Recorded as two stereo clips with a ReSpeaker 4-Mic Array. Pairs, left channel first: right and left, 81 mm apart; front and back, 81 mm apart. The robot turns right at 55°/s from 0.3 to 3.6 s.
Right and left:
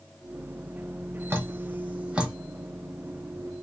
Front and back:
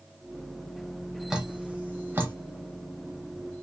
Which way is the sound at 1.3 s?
105° left.